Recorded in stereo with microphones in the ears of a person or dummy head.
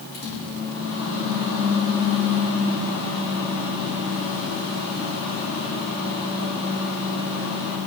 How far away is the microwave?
About 4.5 m.